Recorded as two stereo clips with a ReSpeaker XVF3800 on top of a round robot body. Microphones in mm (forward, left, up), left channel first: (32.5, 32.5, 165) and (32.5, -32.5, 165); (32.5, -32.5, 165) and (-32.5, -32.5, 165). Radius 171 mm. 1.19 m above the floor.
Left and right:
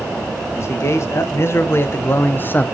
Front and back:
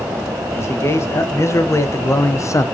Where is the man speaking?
45° left, 2.5 m; by 2.6 s 30° left, 1.3 m.